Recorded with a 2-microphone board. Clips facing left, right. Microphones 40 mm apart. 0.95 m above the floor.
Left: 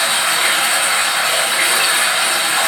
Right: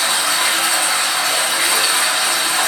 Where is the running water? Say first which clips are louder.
Left 2 dB; 30° left (ahead or behind), 1.5 m.